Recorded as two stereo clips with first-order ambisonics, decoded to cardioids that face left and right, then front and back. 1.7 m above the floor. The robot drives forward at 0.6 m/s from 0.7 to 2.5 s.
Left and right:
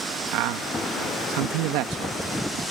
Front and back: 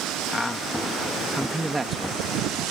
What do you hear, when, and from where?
0.3 s a man speaking: 85° right; by 2.6 s 115° right